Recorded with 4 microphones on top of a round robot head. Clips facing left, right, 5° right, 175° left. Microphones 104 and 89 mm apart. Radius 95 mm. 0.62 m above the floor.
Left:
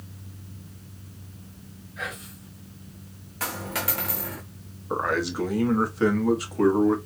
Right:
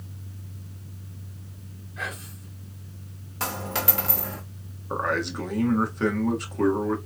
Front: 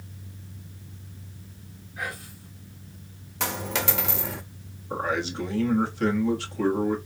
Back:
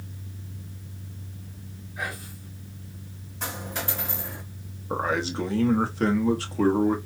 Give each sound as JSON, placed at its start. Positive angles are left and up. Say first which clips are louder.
{"t": 2.0, "sound": "whispering", "louder": "even, back 1 dB", "azimuth_deg": -130, "distance_m": 1.4}
{"t": 3.4, "sound": "a dropped coin", "louder": "right 2 dB, front 5 dB", "azimuth_deg": -25, "distance_m": 0.6}
{"t": 4.9, "sound": "a man speaking", "louder": "left 1 dB, back 1 dB", "azimuth_deg": 175, "distance_m": 1.3}